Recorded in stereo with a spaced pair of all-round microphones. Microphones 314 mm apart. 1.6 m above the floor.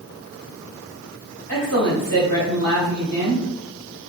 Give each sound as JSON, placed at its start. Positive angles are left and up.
{"t": 1.5, "sound": "a man speaking", "side_deg": -85, "distance_m": 1.9}